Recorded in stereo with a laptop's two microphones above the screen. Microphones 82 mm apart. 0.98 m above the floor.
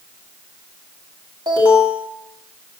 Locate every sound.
1.5 s an alarm: 60° right (ahead or behind), 2 m